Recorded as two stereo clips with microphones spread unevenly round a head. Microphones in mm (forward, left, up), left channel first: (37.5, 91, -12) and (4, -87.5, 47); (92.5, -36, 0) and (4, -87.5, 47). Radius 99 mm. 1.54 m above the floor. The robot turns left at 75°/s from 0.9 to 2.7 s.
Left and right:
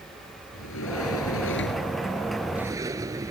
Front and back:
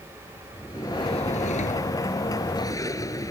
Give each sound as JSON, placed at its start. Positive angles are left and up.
{"t": 0.5, "sound": "a sliding door", "azimuth_deg": 105}